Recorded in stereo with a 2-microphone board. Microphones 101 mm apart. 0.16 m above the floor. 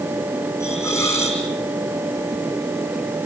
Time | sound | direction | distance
0.6 | a hiss | 25° left (ahead or behind) | 4.5 m